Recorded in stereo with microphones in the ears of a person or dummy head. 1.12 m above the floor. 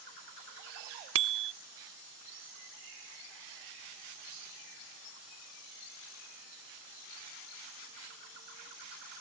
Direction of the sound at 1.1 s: 65° right (ahead or behind).